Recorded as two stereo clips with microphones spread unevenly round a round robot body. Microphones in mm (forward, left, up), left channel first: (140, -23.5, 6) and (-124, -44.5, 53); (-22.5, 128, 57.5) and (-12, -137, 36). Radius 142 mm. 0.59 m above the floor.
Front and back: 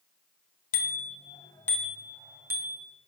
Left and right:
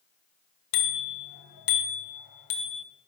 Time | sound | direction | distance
0.7 | a bicycle bell | 65° left | 2 m